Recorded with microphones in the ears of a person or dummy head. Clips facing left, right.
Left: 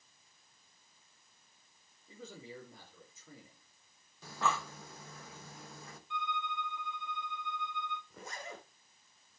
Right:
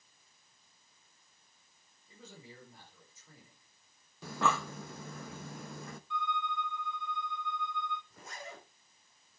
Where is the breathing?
50° right (ahead or behind), 0.8 m.